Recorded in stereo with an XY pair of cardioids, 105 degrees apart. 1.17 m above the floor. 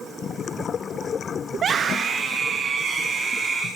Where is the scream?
50° right, 1.6 m.